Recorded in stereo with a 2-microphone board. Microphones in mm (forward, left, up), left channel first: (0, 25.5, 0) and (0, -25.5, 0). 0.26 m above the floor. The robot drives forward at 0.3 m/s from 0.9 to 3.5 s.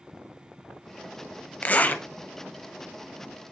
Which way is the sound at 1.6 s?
35° left (ahead or behind).